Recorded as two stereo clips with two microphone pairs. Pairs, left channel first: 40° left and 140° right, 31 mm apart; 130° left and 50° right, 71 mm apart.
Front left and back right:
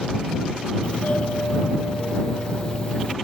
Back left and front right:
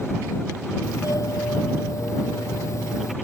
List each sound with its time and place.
0.8 s a doorbell: 90° left